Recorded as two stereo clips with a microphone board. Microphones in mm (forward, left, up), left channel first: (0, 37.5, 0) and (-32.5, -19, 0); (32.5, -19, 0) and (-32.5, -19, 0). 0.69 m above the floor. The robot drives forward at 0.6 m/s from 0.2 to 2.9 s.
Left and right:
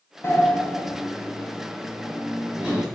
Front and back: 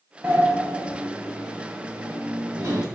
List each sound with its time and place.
0.2 s a sliding door: 110° left, 0.7 m; by 2.8 s 160° left, 1.9 m